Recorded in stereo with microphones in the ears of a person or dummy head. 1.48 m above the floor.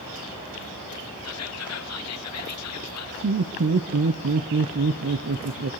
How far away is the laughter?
About 0.9 m.